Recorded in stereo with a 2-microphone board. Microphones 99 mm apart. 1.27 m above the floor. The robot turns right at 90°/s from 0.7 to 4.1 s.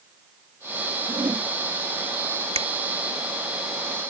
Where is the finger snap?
85° right; by 2.7 s 75° right (ahead or behind).